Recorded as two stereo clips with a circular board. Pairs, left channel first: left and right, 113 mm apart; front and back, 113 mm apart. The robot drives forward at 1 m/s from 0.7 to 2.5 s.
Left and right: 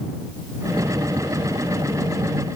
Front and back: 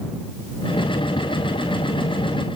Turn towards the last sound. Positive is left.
No sound to turn to.